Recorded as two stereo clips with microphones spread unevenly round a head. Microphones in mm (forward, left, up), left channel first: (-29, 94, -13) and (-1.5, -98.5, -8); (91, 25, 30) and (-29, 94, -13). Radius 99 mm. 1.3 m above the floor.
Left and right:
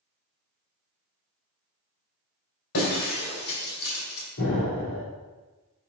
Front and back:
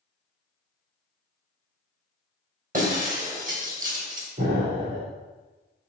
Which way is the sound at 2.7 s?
110° left.